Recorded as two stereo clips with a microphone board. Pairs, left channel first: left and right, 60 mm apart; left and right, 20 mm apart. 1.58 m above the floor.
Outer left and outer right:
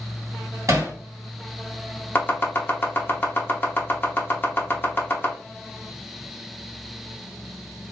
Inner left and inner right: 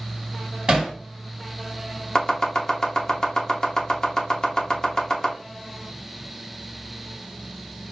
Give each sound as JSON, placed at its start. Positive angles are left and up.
{"t": 0.7, "sound": "hammering", "side_deg": -50, "distance_m": 1.6}
{"t": 2.1, "sound": "chopping", "side_deg": 30, "distance_m": 0.8}